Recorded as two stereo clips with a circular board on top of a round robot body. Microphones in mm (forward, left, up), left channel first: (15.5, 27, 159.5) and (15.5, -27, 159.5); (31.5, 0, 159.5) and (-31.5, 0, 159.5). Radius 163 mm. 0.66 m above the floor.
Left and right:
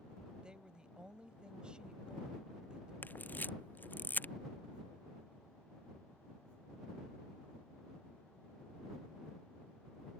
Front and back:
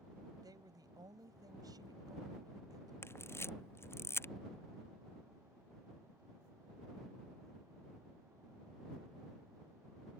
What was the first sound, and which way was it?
A woman speaking, 165° right.